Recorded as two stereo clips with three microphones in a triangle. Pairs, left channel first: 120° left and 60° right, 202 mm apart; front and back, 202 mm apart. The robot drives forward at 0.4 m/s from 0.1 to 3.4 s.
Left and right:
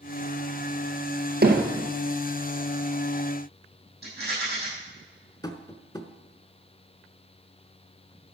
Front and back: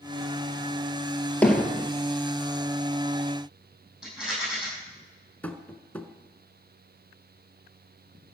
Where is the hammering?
80° right, 1.6 m; by 1.9 s 90° right, 1.6 m.